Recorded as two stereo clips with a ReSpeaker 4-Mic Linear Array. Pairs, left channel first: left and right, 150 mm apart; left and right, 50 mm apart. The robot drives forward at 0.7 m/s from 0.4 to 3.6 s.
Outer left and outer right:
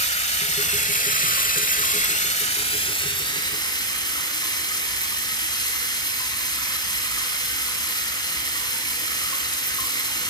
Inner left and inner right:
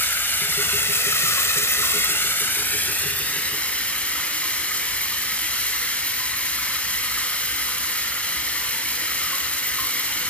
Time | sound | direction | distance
0.0 | running water | 45° left (ahead or behind) | 1.2 m